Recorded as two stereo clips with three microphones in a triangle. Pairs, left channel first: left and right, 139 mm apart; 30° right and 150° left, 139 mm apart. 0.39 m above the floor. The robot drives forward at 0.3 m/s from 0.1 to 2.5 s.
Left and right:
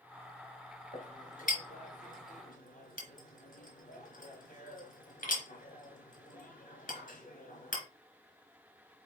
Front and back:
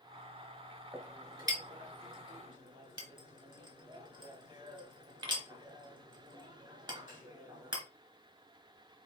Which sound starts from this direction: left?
A clink, at 0.9 s.